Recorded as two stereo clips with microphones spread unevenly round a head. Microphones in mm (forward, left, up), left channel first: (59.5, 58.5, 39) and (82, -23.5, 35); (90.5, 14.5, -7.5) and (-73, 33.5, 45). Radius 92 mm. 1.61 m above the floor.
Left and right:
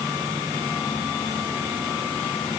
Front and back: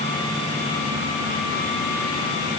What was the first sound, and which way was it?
Only background noise.